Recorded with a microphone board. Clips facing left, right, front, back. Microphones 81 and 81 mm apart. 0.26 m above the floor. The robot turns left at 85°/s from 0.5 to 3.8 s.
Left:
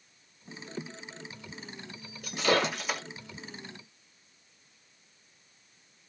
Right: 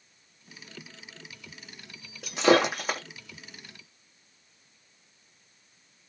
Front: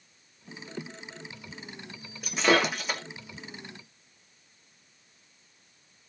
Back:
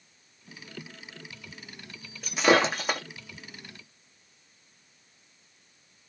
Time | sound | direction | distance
2.2 | breaking glass | 85° right | 1.2 m